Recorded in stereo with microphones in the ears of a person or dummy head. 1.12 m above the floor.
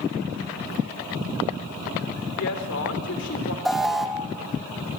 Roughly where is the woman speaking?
Left.